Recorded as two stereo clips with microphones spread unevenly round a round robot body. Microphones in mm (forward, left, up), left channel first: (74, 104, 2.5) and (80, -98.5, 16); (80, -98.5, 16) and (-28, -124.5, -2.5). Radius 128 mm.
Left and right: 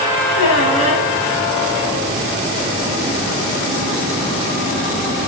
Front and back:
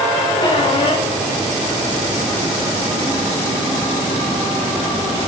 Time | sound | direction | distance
0.4 | a squeak | 85° left | 5.5 m